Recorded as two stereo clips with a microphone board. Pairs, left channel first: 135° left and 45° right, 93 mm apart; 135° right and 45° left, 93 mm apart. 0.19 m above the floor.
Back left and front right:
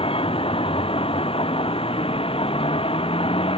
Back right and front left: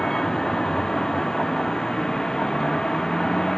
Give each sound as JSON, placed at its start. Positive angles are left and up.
{"t": 0.0, "sound": "a vehicle", "azimuth_deg": 140}